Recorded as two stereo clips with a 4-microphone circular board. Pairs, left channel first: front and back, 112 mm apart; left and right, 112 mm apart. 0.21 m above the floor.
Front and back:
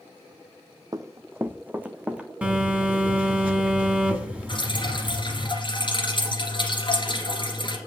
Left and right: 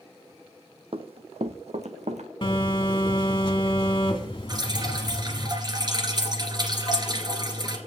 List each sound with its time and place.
0.9 s running footsteps: 125° right, 0.6 m; by 2.3 s 100° right, 1.3 m
2.4 s a phone buzzing: 105° left, 1.5 m
4.5 s dripping: 40° right, 2 m